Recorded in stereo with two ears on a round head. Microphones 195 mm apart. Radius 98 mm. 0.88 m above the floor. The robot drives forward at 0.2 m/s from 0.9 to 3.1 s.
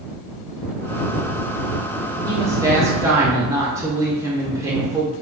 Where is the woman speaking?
15° right (ahead or behind), 0.7 m.